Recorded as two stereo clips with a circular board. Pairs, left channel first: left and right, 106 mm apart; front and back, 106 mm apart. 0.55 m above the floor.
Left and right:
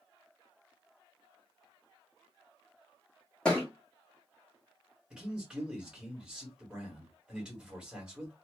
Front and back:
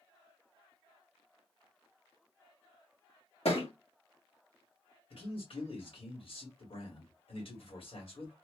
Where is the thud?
10° left, 1.3 m.